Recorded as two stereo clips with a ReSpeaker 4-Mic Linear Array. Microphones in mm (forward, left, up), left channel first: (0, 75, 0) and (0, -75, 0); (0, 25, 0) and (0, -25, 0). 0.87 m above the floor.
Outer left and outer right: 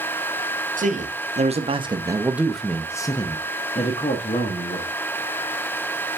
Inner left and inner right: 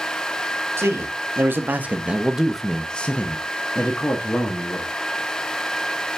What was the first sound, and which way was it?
A man speaking, 60° right (ahead or behind).